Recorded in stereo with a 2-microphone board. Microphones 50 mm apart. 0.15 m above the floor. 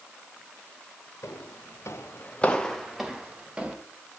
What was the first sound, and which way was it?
Footsteps, 80° left.